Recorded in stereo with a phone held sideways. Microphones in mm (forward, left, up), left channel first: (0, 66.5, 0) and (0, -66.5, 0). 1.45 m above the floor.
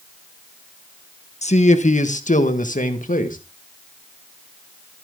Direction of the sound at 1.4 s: 55° left (ahead or behind).